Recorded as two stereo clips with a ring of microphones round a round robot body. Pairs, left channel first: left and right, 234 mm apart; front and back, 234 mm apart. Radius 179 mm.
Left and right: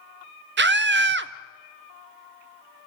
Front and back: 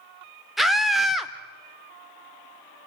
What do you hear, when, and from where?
0.6 s a scream: 90° right, 1.0 m